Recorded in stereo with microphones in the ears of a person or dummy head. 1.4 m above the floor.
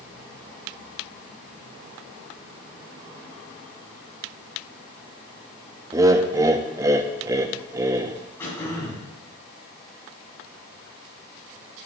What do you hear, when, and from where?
5.9 s laughter: 20° right (ahead or behind), 0.5 m
8.4 s throat clearing: 10° left (ahead or behind), 5.5 m